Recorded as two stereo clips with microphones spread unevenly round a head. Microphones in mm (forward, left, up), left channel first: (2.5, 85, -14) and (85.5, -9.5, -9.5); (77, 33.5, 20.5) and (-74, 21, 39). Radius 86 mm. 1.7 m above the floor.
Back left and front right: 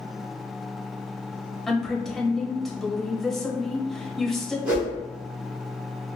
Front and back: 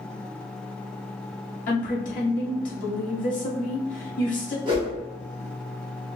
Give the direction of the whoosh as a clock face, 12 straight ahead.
4 o'clock.